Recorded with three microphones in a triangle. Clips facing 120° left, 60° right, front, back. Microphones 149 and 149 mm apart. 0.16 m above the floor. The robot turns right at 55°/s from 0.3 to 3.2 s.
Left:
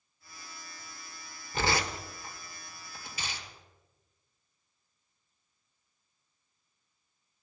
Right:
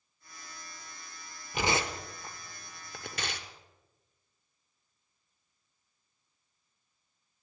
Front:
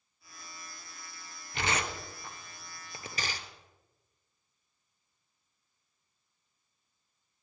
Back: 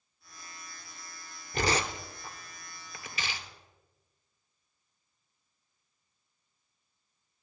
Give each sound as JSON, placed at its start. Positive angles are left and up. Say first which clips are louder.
{"t": 1.5, "sound": "tearing paper", "louder": "even, back 4 dB", "azimuth_deg": -135, "distance_m": 1.0}